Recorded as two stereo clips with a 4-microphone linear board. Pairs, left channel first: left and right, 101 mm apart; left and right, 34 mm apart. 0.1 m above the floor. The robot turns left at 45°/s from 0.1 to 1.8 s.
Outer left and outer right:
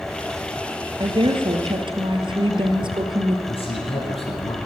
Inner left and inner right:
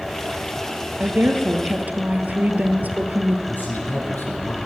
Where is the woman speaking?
70° right, 1.7 m; by 3.4 s 105° right, 1.7 m.